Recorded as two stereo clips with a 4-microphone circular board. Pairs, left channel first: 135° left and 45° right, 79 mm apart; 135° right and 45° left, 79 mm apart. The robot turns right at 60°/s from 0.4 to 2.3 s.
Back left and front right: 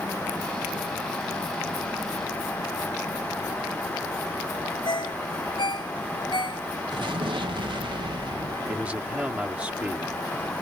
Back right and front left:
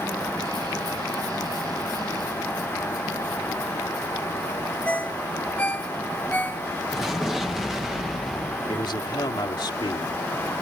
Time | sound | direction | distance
4.8 | a ringtone | 150° left | ?
6.9 | an explosion | 45° right | ?
8.7 | a man speaking | 115° right | ?